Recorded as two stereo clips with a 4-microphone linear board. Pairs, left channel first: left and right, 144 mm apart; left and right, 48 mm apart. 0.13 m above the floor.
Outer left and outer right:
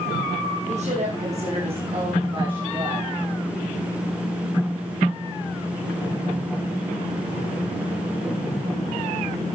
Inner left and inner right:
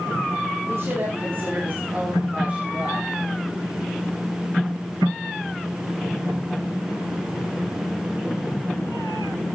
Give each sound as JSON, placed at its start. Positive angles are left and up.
{"t": 0.7, "sound": "a woman speaking", "side_deg": -55, "distance_m": 7.0}